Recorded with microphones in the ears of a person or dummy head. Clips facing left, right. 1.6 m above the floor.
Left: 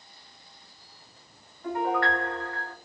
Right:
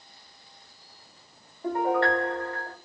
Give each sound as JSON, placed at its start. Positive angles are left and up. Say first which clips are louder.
{"t": 1.6, "sound": "a piano", "louder": "right 3 dB", "side_deg": -30, "distance_m": 0.7}